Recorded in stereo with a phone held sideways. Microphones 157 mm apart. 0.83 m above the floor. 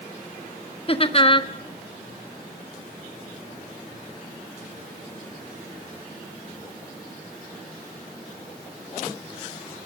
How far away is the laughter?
About 1.3 m.